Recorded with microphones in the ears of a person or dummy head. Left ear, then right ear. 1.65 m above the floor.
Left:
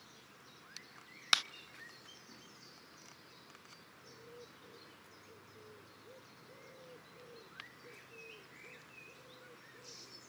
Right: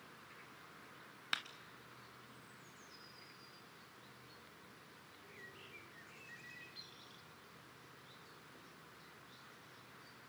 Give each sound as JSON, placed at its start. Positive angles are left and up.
{"t": 1.3, "sound": "a clap", "side_deg": 50, "distance_m": 0.6}